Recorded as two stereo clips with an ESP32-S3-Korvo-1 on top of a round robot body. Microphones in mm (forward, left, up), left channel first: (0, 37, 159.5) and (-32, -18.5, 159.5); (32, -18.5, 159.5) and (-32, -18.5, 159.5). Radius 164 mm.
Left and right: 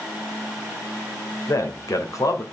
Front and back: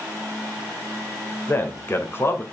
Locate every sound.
1.5 s a man speaking: 45° left, 2 m